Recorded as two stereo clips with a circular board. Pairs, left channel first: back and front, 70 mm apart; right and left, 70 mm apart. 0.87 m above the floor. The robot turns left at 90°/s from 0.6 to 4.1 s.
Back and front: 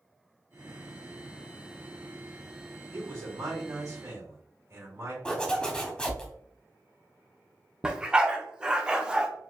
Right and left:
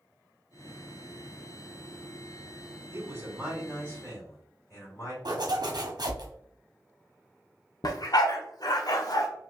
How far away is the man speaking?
About 2.5 m.